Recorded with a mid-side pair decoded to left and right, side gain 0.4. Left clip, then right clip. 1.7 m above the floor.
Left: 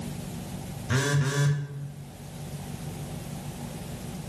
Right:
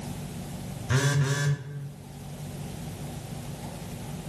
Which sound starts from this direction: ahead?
A phone buzzing, at 0.9 s.